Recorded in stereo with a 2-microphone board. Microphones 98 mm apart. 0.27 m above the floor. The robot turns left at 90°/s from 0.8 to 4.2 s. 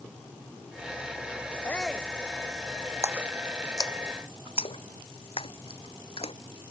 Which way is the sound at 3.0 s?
30° right (ahead or behind).